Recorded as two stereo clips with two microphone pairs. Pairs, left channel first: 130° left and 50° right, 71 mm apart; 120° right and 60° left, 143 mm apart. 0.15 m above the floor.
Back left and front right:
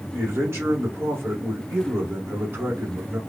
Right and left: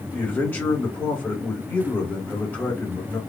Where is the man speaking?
45° right, 1.3 m.